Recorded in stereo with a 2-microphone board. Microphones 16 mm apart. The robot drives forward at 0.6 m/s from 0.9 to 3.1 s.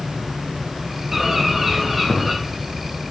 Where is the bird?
10° right (ahead or behind), 2.0 m.